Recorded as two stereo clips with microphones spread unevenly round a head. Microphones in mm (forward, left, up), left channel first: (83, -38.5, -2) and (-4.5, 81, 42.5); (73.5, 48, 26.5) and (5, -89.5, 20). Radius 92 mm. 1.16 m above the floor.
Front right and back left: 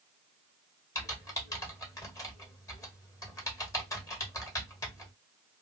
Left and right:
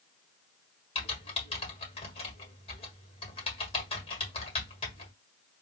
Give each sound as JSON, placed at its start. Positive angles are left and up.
{"t": 0.9, "sound": "typing on a keyboard", "azimuth_deg": 10, "distance_m": 1.6}